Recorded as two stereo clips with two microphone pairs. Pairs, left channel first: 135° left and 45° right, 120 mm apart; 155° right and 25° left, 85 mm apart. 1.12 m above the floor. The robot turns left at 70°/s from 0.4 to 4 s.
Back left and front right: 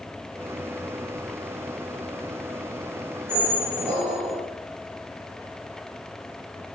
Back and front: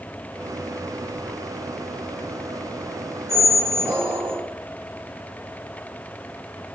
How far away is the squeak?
About 1.3 m.